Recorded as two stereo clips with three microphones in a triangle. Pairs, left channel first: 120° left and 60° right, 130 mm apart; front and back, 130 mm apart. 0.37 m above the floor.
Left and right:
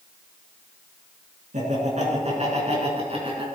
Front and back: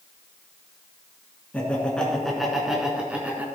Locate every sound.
1.5 s laughter: 80° right, 4.5 m; by 3.5 s 100° right, 4 m